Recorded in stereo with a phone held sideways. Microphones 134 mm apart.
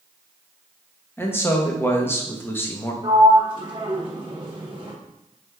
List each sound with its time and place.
1.2 s a man speaking: 15° left (ahead or behind), 0.7 m
3.0 s a sliding door: 40° right (ahead or behind), 1.2 m